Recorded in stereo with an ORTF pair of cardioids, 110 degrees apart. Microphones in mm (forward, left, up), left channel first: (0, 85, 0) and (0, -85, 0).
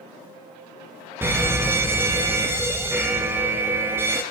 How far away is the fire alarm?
About 2.5 m.